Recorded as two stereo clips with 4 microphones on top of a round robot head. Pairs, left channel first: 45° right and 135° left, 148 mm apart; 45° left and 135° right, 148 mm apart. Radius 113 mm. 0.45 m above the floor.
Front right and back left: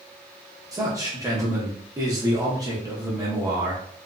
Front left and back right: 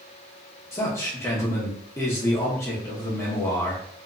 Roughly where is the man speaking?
Left.